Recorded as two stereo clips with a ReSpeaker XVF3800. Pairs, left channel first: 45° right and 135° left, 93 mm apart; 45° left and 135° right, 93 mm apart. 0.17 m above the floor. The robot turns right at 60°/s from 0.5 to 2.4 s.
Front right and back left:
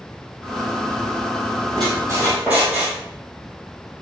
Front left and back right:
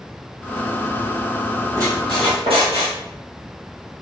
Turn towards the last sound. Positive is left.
turn(degrees=-150)